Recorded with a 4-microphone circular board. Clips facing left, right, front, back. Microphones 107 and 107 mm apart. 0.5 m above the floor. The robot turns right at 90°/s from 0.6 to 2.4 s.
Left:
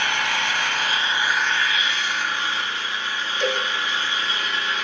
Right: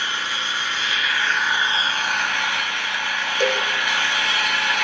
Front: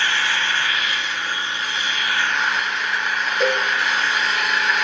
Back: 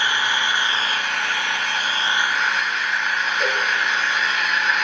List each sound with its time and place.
0.0 s an engine running: 110° left, 3.5 m; by 4.8 s 90° right, 3.5 m
3.4 s a cowbell: 60° right, 6.5 m